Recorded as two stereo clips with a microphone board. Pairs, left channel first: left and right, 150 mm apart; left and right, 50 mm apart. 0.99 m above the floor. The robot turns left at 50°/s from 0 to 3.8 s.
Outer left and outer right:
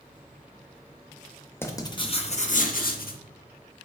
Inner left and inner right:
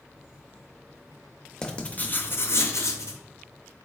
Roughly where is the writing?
Behind.